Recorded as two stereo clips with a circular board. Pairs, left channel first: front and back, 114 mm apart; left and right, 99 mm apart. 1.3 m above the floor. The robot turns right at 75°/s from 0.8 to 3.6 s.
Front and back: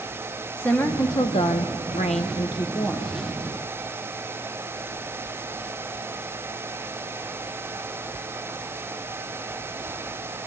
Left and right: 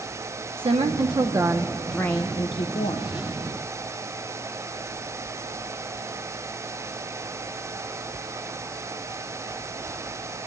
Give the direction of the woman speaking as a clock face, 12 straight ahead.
3 o'clock.